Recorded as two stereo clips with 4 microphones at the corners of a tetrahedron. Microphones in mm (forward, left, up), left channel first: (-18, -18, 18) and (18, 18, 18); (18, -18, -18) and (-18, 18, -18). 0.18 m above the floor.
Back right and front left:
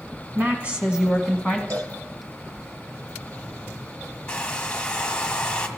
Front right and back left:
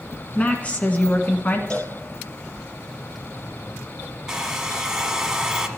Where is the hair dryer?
175° right, 1.3 m.